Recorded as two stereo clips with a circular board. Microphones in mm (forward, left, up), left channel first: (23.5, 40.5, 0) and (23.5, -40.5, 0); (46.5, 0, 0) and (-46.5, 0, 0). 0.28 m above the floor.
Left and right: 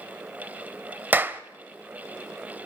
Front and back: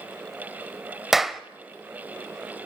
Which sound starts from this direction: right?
A clap, at 1.1 s.